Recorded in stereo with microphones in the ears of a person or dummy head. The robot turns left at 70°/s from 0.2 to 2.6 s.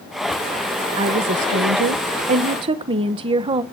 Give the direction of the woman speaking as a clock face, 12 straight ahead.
1 o'clock.